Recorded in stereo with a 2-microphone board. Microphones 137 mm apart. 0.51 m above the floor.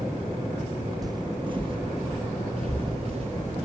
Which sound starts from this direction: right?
Footsteps, at 1.0 s.